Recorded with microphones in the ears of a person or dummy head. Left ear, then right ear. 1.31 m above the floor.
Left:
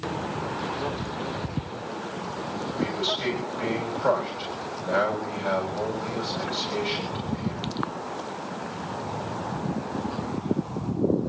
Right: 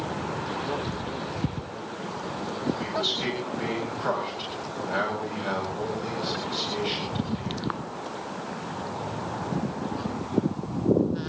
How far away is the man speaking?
About 9 m.